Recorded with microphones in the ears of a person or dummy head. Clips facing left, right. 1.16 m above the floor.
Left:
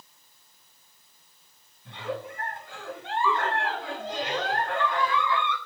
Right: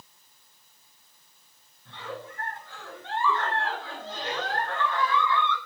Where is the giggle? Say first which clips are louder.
Left 5 dB; 15° left (ahead or behind), 9 m.